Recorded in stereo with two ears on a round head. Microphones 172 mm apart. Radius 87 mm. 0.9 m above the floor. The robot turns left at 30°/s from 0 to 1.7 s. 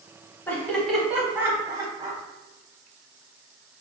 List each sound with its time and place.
0.5 s laughter: 10° left (ahead or behind), 1.0 m; by 2.2 s 15° right (ahead or behind), 1.0 m